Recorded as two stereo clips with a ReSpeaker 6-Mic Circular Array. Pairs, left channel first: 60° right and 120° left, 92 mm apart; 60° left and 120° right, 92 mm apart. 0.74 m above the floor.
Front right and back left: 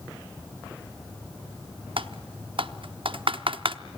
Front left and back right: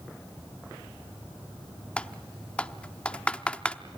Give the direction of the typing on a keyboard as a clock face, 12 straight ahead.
7 o'clock.